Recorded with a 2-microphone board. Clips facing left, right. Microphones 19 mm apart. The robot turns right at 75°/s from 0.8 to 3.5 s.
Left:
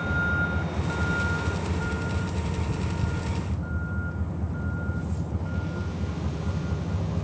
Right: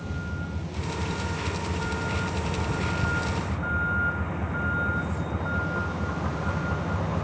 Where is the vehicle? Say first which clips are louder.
Left 9 dB; 95° left; by 7.2 s 60° right.